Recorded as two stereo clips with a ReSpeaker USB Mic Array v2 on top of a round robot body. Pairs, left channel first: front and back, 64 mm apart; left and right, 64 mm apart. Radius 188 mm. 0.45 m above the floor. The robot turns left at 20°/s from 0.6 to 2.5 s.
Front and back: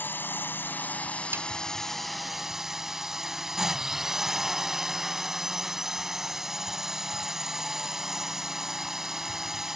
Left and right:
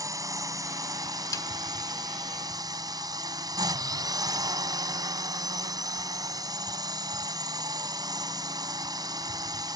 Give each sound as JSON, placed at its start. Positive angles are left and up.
{"t": 0.0, "sound": "a drone", "azimuth_deg": -60}
{"t": 1.3, "sound": "a snare drum", "azimuth_deg": 125}